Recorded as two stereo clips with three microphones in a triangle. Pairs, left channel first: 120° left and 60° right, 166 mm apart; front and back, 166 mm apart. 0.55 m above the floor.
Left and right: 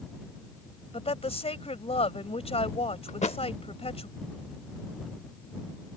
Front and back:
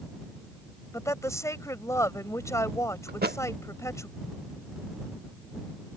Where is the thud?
165° left.